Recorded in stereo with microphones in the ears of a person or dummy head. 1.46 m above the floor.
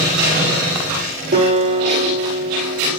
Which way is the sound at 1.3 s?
55° right (ahead or behind).